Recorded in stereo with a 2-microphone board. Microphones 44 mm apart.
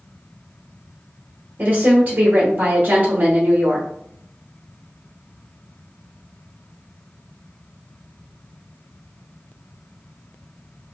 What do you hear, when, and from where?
1.6 s a woman speaking: 40° right (ahead or behind), 1.0 m